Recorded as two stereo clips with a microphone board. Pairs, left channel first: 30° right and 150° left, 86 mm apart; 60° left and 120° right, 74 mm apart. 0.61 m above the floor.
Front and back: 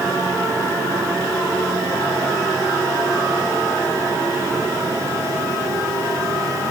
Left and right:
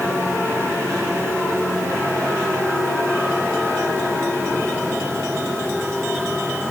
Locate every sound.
Only background noise.